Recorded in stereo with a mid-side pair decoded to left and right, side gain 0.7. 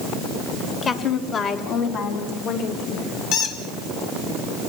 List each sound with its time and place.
0.8 s a woman speaking: 30° left, 2.5 m; by 3.2 s 70° left, 5.5 m
3.3 s a squeak: 60° left, 2.5 m